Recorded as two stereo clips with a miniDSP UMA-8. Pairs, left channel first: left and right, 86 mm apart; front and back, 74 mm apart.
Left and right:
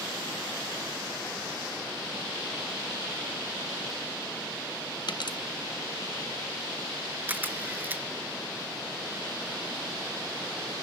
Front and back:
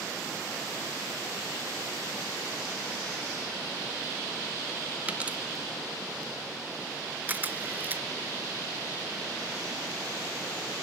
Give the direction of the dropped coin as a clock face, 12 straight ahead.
8 o'clock.